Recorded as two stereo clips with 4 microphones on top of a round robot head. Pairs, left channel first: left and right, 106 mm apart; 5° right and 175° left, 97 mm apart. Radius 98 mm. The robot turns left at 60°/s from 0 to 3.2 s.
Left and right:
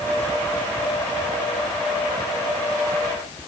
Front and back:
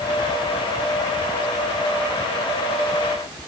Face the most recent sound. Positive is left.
No sound to turn to.